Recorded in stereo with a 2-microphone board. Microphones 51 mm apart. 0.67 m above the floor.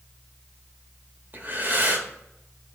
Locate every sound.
1.3 s breathing: 40° right (ahead or behind), 1.2 m